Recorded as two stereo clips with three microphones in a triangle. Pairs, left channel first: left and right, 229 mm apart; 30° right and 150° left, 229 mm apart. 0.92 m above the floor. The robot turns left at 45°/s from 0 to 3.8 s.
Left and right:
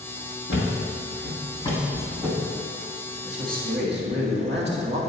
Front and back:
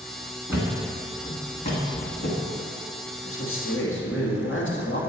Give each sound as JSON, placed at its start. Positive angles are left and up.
{"t": 0.5, "sound": "a thud", "azimuth_deg": 75, "distance_m": 1.5}
{"t": 3.2, "sound": "a man speaking", "azimuth_deg": -30, "distance_m": 1.8}